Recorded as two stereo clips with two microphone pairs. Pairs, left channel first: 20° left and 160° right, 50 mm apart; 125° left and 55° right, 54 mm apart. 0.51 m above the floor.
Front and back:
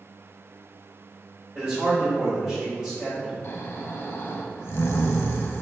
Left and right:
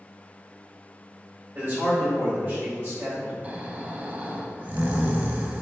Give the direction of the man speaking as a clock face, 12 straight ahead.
3 o'clock.